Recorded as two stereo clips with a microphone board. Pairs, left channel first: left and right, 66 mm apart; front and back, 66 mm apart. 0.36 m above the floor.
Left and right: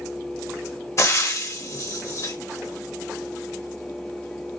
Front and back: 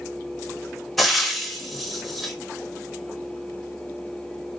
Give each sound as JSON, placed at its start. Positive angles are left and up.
{"t": 1.0, "sound": "frying", "azimuth_deg": 85, "distance_m": 0.7}